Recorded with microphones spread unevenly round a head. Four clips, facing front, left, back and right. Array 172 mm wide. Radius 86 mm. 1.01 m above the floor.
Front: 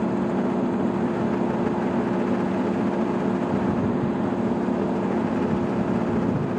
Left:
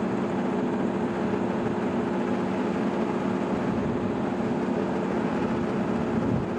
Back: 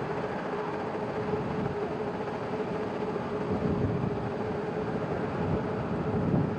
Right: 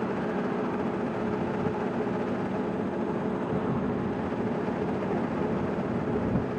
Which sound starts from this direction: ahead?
A machine running, at 0.0 s.